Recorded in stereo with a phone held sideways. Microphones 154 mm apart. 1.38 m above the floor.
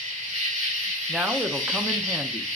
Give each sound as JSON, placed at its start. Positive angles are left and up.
{"t": 0.0, "sound": "an insect", "side_deg": -55, "distance_m": 2.5}
{"t": 1.1, "sound": "a man speaking", "side_deg": -10, "distance_m": 0.7}